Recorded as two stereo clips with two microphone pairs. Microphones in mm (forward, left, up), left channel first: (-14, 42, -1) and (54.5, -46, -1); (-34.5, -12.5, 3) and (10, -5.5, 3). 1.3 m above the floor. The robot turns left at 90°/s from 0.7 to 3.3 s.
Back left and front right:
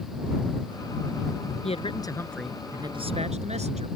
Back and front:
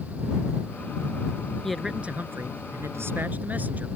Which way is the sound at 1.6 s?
110° left.